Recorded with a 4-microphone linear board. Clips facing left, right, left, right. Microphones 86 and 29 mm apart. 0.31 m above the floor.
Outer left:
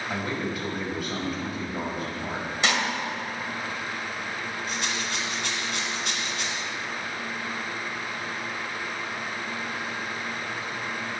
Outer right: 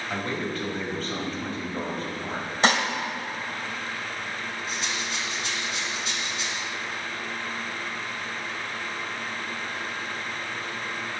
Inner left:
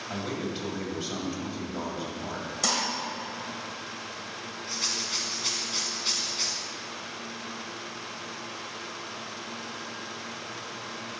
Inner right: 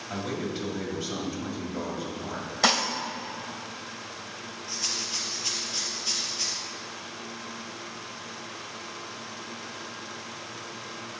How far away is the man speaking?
About 1.9 m.